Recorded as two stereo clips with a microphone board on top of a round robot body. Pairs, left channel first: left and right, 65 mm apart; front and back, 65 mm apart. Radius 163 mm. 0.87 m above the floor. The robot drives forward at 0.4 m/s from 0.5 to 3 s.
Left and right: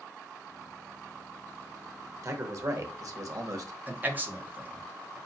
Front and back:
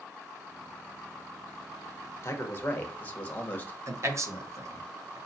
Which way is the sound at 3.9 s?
150° right.